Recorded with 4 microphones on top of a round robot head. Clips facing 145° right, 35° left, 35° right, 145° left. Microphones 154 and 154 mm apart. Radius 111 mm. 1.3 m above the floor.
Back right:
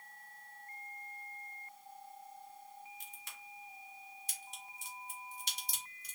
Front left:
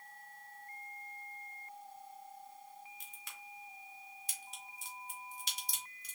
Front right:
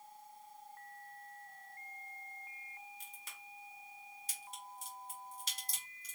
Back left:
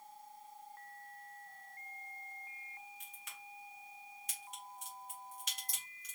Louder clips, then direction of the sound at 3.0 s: Even, back left 1 dB; 25° left.